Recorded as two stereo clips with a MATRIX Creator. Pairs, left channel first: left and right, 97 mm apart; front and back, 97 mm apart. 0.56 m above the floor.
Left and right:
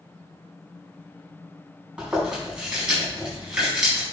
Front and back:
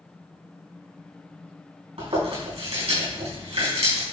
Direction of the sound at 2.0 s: 170° right.